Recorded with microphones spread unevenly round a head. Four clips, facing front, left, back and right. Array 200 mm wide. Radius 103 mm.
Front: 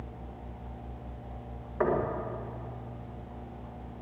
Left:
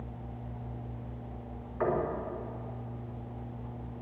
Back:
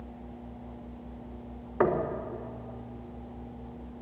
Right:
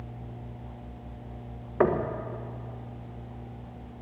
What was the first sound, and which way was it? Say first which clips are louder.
Knocking: right 5 dB, back 2 dB; 120° right.